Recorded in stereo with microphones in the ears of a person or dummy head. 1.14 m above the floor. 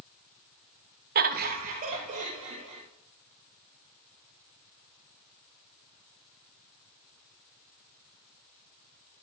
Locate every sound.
1.1 s laughter: 40° right (ahead or behind), 0.6 m